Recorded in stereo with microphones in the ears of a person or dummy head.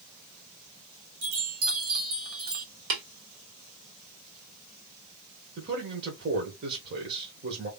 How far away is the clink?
No clink in this recording.